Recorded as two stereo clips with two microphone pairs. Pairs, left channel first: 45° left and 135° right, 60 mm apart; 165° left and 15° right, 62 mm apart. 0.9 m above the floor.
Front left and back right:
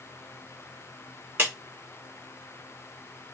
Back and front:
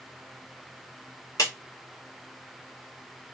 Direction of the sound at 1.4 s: 170° left.